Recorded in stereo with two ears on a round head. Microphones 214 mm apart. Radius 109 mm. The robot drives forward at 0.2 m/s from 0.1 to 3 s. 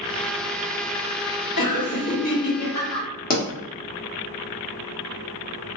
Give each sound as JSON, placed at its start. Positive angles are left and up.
{"t": 1.6, "sound": "laughter", "side_deg": 75, "distance_m": 1.7}
{"t": 3.3, "sound": "a pop", "side_deg": 35, "distance_m": 0.9}